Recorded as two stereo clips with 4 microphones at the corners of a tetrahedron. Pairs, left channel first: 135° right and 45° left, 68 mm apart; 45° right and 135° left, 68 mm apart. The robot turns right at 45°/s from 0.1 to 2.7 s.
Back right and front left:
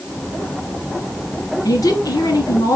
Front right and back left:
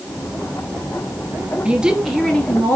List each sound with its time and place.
1.6 s a woman speaking: 155° right, 3 m; by 2.8 s 110° right, 3 m